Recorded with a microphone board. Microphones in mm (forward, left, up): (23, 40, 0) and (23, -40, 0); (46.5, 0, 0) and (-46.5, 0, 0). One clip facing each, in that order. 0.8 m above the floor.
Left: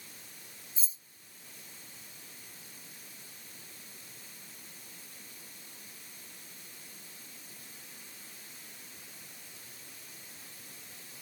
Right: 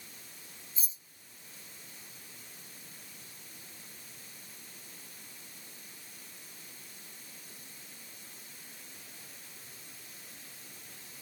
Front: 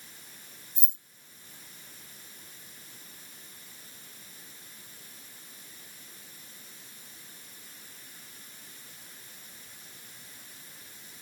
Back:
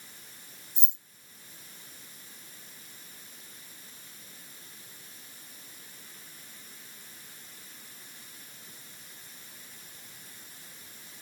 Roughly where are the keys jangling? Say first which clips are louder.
Right 1 dB, even; ahead left.